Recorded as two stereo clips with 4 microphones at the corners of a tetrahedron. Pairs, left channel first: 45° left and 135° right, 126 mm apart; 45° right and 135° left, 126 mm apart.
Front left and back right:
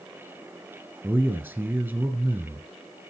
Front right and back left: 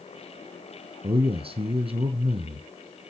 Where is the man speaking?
160° left, 1.9 m.